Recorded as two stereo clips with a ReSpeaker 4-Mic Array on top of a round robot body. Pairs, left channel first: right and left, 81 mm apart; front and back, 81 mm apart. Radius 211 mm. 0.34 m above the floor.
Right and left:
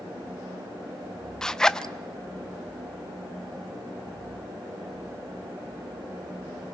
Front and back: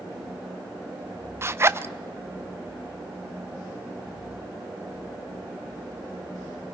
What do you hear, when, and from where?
1.4 s a zipper: 165° right, 0.8 m